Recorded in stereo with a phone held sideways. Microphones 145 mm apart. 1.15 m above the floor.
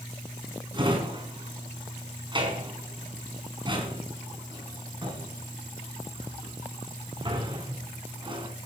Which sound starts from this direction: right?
A drawer, at 0.7 s.